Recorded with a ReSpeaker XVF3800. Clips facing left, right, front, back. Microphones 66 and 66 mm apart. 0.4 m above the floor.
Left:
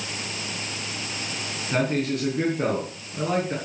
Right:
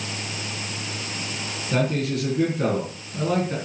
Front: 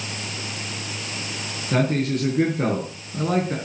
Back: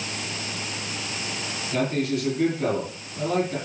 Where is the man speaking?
15° left, 4 m.